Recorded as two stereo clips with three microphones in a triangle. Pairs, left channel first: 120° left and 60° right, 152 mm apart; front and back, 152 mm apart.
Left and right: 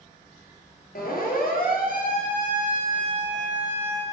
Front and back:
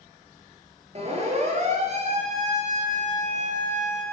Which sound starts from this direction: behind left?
A siren, at 0.9 s.